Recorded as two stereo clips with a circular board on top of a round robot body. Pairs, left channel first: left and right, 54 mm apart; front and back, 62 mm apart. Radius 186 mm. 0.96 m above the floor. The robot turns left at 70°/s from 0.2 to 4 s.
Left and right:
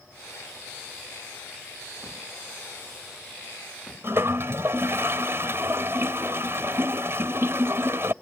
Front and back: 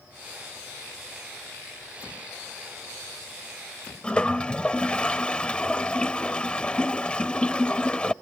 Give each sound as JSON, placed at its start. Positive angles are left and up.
{"t": 4.0, "sound": "a toilet flushing", "azimuth_deg": -70}